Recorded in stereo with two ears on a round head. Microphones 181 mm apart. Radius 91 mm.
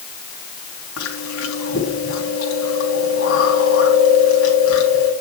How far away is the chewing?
About 3.5 m.